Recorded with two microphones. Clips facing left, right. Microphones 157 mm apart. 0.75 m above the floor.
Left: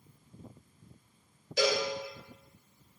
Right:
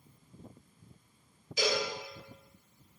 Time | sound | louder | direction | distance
1.6 | a cowbell | left 3 dB | 70° left (ahead or behind) | 1.0 m